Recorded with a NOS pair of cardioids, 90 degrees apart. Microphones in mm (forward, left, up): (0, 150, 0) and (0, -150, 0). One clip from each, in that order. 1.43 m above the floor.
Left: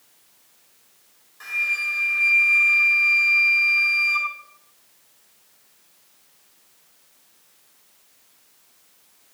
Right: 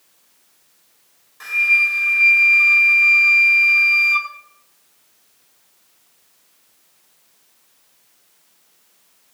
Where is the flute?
35° right, 6.5 m.